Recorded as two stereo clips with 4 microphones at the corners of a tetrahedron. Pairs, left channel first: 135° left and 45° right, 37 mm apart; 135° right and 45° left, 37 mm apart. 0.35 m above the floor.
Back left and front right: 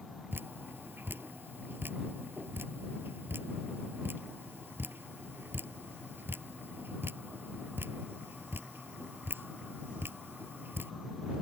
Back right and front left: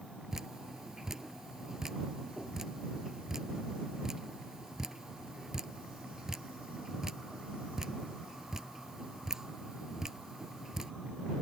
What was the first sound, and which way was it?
Dripping, 30° right.